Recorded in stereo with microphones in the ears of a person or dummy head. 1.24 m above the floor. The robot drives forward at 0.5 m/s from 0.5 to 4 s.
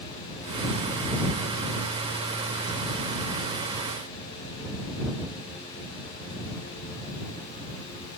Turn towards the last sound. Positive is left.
No sound to turn to.